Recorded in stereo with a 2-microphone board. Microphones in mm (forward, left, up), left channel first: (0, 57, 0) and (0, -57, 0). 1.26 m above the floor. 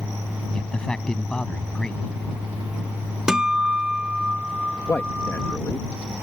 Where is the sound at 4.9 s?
20° left (ahead or behind).